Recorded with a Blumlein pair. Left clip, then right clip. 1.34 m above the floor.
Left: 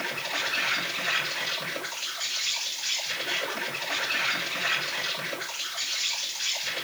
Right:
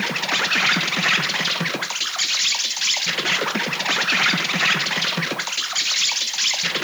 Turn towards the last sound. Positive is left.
turn(degrees=-50)